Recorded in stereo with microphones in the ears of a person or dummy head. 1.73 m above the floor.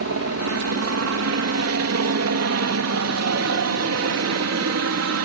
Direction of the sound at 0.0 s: 65° right (ahead or behind).